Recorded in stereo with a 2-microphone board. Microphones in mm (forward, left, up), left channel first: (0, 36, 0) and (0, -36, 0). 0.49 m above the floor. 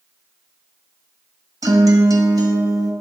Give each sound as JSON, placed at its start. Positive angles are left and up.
{"t": 1.6, "sound": "a guitar", "side_deg": -60, "distance_m": 1.3}